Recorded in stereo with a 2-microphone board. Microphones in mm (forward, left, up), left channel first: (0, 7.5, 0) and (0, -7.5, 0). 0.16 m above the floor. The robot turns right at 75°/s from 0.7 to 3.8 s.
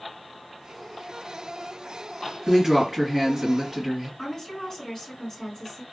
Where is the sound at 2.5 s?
105° right, 2 m; by 4.1 s 5° right, 2 m.